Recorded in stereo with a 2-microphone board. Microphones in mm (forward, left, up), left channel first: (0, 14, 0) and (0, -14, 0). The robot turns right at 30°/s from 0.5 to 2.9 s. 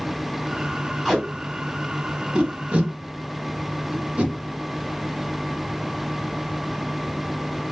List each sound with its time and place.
1.1 s tape being pulled: 5° left (ahead or behind), 1.2 m; by 4.3 s 50° right (ahead or behind), 1.2 m